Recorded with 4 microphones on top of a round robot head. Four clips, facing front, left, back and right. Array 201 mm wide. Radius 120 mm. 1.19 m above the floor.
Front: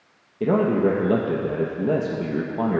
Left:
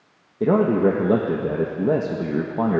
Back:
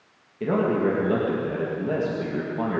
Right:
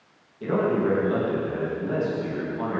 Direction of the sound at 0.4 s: 65° left.